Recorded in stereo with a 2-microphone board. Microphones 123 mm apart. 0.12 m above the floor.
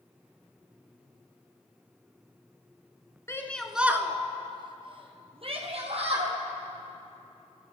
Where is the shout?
25° left (ahead or behind), 1.2 m; by 6.3 s 55° right (ahead or behind), 4 m.